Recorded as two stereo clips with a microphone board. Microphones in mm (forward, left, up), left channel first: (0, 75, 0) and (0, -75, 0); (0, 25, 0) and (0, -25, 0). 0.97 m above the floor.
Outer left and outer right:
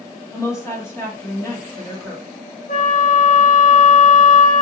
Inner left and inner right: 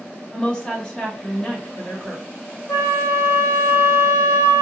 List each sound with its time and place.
0.3 s a woman speaking: 20° left (ahead or behind), 1.6 m
2.7 s a flute: 60° left (ahead or behind), 2 m